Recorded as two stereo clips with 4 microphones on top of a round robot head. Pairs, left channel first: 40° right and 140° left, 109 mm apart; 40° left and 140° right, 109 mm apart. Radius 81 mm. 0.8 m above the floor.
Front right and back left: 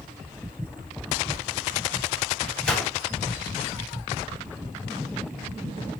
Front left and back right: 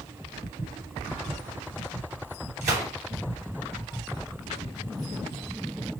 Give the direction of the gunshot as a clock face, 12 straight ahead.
4 o'clock.